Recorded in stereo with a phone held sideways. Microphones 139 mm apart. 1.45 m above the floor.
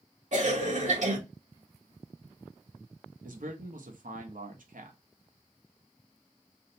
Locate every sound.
0.3 s a cough: 60° right (ahead or behind), 0.7 m
3.2 s a man speaking: 75° right (ahead or behind), 0.7 m